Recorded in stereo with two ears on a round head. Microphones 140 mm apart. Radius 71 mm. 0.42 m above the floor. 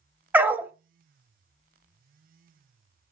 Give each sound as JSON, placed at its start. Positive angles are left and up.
{"t": 0.3, "sound": "a dog barking", "side_deg": -10, "distance_m": 0.6}